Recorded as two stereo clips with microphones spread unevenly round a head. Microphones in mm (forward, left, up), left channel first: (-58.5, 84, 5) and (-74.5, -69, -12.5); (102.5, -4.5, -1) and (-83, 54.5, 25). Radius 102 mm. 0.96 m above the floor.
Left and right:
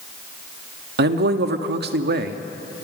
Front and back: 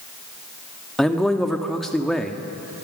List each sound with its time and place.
1.0 s a man speaking: 105° right, 1.4 m